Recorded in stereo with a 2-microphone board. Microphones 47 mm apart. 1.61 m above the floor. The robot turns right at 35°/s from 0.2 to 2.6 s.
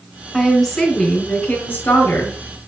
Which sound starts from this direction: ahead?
A woman speaking, at 0.3 s.